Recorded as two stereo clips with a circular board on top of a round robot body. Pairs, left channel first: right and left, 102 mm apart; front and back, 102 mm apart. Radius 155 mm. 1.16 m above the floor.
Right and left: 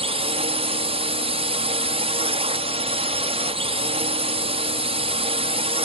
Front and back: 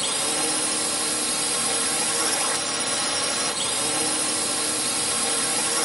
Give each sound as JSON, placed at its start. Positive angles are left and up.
{"t": 0.0, "sound": "a drone", "azimuth_deg": 95}